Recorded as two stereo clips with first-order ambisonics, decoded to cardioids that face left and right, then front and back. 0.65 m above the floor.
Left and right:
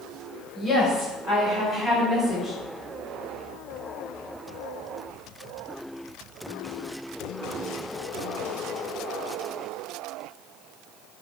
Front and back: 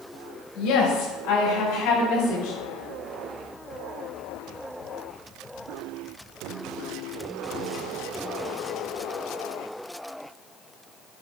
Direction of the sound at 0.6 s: 10° left.